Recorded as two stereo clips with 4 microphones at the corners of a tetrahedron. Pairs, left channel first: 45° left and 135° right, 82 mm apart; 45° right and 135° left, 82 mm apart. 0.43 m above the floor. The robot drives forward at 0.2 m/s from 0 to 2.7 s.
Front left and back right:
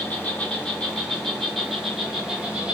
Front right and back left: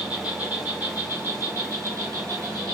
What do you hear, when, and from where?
0.0 s an insect: 85° left, 0.7 m; by 2.8 s 150° left, 0.9 m